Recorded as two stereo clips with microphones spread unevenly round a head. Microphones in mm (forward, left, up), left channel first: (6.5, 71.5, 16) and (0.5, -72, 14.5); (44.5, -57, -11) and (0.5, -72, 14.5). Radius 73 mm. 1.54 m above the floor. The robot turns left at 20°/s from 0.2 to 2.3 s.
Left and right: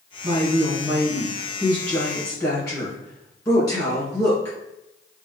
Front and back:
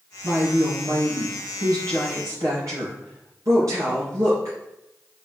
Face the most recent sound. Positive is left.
turn(degrees=155)